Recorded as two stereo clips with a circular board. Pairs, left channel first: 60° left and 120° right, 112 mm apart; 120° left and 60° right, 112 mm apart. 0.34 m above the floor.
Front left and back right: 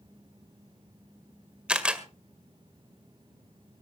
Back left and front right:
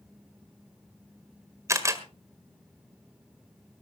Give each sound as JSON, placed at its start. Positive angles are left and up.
{"t": 1.7, "sound": "a camera shutter", "azimuth_deg": -50, "distance_m": 1.6}